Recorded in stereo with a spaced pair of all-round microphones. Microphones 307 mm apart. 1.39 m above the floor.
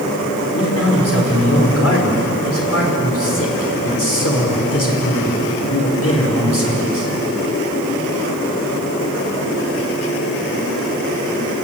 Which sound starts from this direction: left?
A man speaking, at 0.5 s.